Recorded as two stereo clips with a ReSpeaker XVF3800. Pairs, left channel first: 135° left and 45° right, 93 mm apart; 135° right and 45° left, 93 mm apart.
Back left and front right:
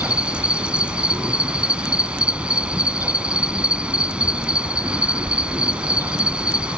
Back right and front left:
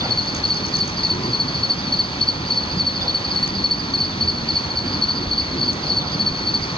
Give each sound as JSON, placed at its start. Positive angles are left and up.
{"t": 0.0, "sound": "an insect", "azimuth_deg": -120}